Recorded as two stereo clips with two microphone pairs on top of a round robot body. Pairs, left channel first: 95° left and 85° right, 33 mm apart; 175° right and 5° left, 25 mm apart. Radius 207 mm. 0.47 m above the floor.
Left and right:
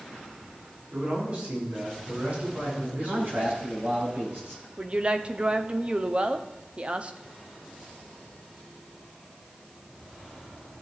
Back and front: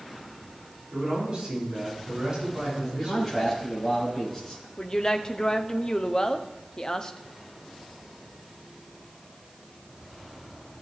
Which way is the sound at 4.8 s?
125° right.